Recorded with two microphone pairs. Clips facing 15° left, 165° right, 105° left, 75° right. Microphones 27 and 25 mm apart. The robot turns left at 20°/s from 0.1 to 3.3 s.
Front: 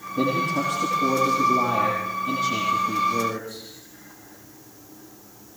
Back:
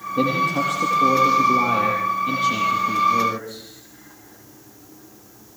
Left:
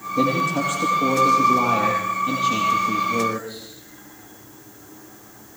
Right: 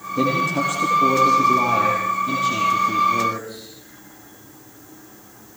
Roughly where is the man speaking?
Behind.